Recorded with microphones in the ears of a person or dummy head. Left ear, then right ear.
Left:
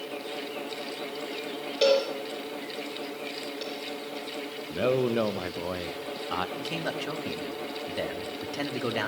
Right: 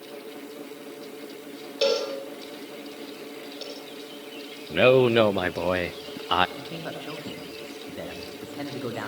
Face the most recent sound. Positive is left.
turn(degrees=80)